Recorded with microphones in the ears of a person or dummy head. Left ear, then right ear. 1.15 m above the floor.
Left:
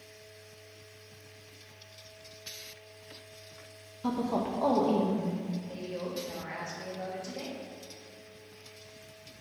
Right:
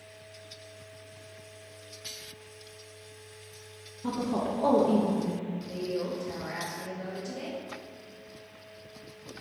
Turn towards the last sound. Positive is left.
turn(degrees=70)  # may be behind; listen again after turning